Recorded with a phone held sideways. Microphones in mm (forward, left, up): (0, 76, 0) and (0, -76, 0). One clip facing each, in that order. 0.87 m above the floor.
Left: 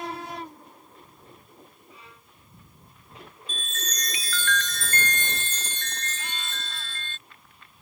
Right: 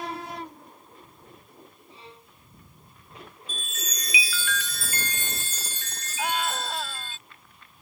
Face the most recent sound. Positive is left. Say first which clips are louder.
# right 11 dB
turn(degrees=-85)